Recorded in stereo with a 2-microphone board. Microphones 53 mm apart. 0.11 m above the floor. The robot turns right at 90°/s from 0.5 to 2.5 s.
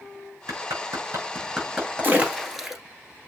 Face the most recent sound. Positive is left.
turn(degrees=-5)  # may be behind; listen again after turning